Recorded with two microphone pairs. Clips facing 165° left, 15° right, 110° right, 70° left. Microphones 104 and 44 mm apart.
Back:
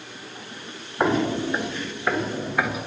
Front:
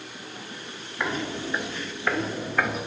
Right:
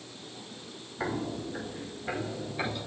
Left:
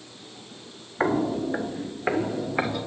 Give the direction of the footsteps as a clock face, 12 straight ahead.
8 o'clock.